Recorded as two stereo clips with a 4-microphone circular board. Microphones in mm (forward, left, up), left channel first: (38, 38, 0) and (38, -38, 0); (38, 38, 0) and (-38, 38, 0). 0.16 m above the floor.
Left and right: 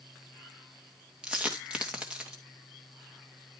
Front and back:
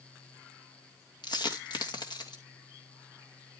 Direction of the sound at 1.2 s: 10° right.